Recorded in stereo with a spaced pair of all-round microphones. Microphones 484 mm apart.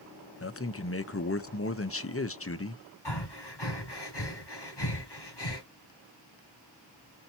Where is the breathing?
55° left (ahead or behind), 1.9 m.